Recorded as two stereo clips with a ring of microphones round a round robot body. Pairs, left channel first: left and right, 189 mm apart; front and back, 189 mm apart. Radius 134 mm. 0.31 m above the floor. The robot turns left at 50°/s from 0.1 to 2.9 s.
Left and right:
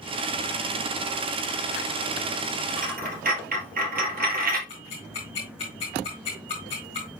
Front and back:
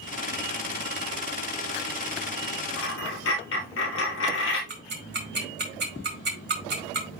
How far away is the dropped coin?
About 2.5 m.